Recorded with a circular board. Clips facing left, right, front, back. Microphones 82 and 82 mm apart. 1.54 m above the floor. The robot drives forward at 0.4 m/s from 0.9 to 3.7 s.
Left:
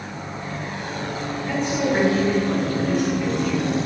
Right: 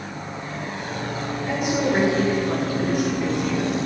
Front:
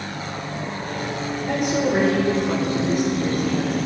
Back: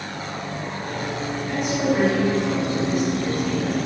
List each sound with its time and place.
1.4 s a woman speaking: 10° right, 5.5 m; by 3.8 s 15° right, 4.5 m